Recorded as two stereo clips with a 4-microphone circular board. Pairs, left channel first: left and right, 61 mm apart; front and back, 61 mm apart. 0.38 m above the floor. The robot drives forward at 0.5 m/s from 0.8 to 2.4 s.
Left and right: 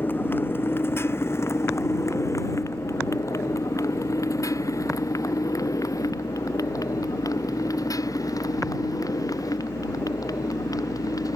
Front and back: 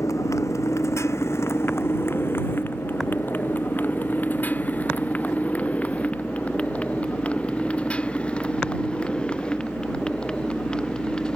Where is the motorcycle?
35° left; by 11.4 s 80° left.